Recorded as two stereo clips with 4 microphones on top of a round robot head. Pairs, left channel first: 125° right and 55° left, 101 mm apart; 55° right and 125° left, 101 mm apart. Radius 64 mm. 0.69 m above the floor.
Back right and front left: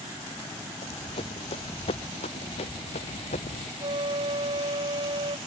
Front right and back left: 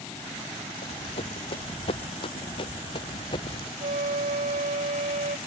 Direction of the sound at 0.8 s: 85° right.